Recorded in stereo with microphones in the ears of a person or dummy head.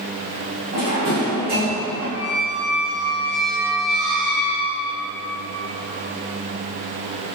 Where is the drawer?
40° right (ahead or behind), 1.6 m.